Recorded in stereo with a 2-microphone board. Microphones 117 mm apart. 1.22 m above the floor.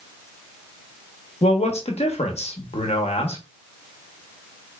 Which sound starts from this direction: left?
A man speaking, at 1.4 s.